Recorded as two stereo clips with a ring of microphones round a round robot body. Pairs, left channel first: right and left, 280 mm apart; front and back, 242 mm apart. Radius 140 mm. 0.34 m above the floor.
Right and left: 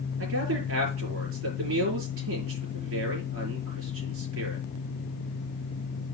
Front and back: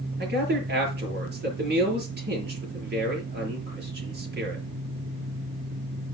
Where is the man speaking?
135° left, 6.5 m.